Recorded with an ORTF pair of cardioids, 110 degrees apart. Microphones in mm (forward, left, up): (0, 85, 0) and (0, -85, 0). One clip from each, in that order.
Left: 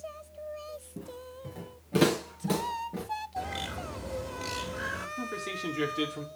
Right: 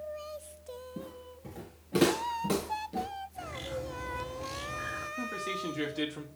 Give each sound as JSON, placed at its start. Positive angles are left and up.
{"t": 1.0, "sound": "footsteps", "azimuth_deg": 0, "distance_m": 5.0}
{"t": 3.4, "sound": "a bird", "azimuth_deg": 60, "distance_m": 2.5}
{"t": 5.2, "sound": "a man speaking", "azimuth_deg": 10, "distance_m": 3.5}